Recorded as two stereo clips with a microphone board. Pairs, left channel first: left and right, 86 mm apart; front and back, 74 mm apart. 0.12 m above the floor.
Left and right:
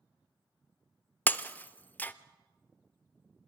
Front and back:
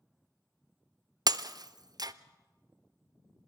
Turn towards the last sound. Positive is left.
turn(degrees=160)